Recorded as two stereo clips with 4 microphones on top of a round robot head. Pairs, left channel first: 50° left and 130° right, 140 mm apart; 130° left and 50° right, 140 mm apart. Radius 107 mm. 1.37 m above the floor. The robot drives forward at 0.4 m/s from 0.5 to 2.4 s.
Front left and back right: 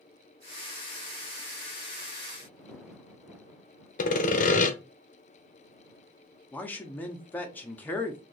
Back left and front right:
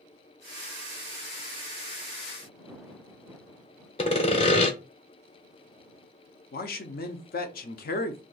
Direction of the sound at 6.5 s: 125° left.